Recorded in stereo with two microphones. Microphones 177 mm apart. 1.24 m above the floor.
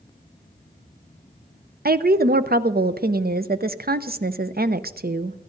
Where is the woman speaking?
65° right (ahead or behind), 0.6 m.